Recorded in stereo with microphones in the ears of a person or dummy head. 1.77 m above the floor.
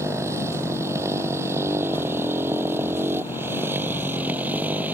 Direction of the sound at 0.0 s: 10° right (ahead or behind).